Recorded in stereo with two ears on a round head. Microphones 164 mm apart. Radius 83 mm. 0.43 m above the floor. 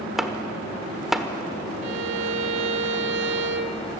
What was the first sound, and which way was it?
Chopping, centre (ahead or behind).